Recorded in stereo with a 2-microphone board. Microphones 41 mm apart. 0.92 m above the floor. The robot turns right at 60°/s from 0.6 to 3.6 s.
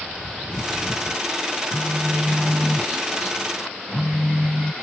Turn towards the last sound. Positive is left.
turn(degrees=50)